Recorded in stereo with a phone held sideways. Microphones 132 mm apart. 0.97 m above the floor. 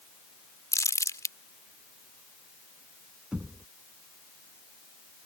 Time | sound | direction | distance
0.7 | crumpling | 25° left (ahead or behind) | ?
3.3 | knocking | 5° right (ahead or behind) | ?